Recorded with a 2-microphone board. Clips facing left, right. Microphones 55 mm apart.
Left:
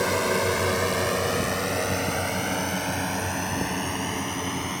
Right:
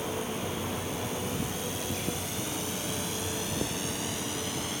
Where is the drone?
65° left (ahead or behind); by 4.8 s 35° left (ahead or behind).